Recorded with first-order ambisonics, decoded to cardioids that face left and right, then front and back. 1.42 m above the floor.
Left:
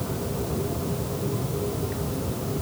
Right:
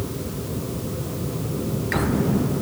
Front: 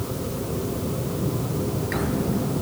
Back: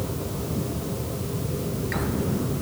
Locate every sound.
Only background noise.